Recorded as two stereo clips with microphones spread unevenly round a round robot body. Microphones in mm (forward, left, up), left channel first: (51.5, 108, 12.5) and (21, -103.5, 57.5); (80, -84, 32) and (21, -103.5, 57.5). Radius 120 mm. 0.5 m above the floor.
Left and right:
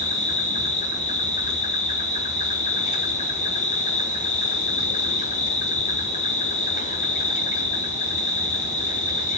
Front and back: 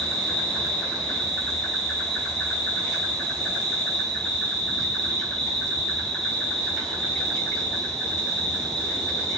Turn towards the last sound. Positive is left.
turn(degrees=65)